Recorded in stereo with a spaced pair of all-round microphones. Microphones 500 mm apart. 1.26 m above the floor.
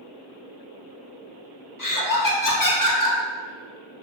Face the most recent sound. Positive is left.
turn(degrees=40)  # may be behind; listen again after turning